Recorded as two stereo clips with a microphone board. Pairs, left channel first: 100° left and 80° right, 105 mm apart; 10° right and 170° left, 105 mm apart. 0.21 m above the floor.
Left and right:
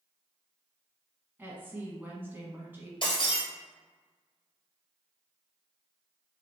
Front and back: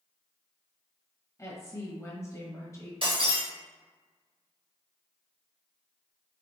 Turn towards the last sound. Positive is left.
turn(degrees=140)